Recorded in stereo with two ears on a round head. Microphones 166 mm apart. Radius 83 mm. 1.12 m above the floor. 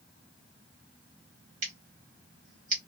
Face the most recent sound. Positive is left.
turn(degrees=-40)  # may be behind; listen again after turning